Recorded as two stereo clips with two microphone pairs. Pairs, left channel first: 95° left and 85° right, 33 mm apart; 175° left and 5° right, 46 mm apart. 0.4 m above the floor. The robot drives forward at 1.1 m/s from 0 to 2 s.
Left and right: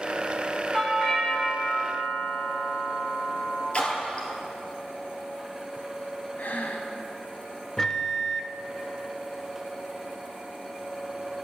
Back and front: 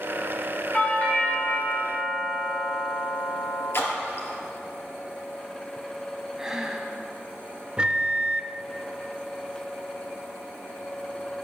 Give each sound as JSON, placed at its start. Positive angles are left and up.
{"t": 0.7, "sound": "a doorbell", "azimuth_deg": 155, "distance_m": 1.8}
{"t": 3.7, "sound": "a splash", "azimuth_deg": 145, "distance_m": 2.5}
{"t": 6.4, "sound": "breathing", "azimuth_deg": 75, "distance_m": 1.3}
{"t": 7.8, "sound": "a microwave", "azimuth_deg": 35, "distance_m": 0.6}